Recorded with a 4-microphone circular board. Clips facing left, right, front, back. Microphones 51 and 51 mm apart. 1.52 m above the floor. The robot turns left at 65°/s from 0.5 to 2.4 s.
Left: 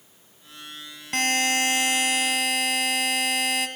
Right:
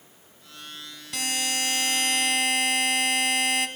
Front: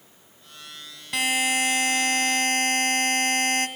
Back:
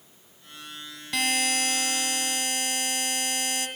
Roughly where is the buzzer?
Left.